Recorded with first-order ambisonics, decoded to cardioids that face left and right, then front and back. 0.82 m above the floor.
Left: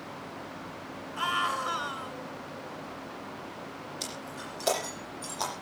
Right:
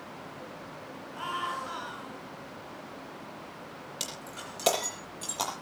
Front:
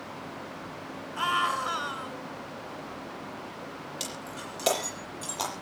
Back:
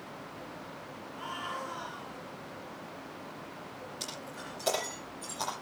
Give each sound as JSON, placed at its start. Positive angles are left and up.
{"t": 1.2, "sound": "a scream", "azimuth_deg": 25, "distance_m": 8.0}
{"t": 4.0, "sound": "breaking glass", "azimuth_deg": -50, "distance_m": 7.5}